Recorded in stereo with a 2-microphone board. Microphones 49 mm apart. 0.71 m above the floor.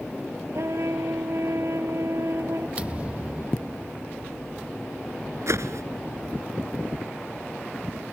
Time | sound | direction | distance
0.5 | a trumpet | 70° right (ahead or behind) | ?
2.8 | a thud | 25° right (ahead or behind) | ?
5.5 | a whoosh | 75° right (ahead or behind) | ?